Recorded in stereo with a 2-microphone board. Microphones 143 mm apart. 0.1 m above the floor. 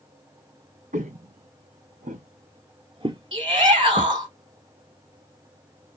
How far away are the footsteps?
About 1.0 m.